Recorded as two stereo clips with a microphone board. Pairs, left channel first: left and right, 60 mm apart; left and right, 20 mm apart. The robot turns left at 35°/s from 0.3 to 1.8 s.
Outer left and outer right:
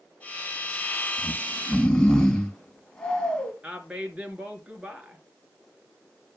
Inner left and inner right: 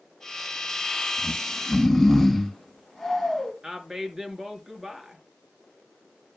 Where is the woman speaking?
20° right (ahead or behind), 2.5 m.